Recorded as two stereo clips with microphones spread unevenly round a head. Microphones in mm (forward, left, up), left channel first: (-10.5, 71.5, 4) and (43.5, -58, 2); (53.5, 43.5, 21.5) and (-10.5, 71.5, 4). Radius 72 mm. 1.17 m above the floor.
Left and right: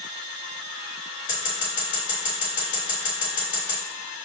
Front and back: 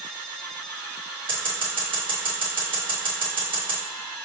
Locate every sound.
1.3 s scissors: 165° left, 1.8 m